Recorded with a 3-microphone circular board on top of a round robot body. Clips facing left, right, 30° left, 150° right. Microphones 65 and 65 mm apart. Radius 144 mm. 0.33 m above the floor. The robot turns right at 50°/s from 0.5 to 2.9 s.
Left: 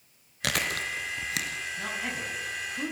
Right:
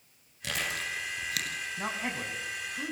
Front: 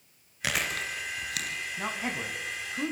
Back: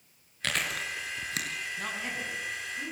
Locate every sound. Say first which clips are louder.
0.4 s chewing: left 4 dB, front 1 dB; 110° left, 3.5 m; by 1.6 s 165° left, 3.5 m
1.8 s a man speaking: even, front 4 dB; 40° right, 5.5 m; by 2.9 s 20° left, 5.5 m